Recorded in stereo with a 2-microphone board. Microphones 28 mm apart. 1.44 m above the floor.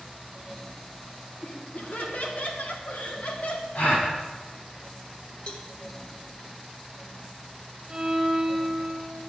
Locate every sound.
1.4 s laughter: 60° left (ahead or behind), 1.8 m
3.8 s a gasp: 80° left, 2 m
5.5 s a cowbell: 40° left (ahead or behind), 1.0 m
7.9 s a violin: 35° right (ahead or behind), 2 m